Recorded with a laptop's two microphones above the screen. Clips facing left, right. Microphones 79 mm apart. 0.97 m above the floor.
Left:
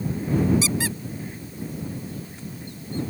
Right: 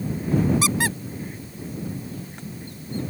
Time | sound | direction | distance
0.6 | a squeak | 60° right (ahead or behind) | ?